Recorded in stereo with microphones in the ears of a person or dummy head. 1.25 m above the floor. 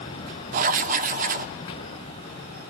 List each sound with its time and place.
0.5 s writing: 40° right (ahead or behind), 0.6 m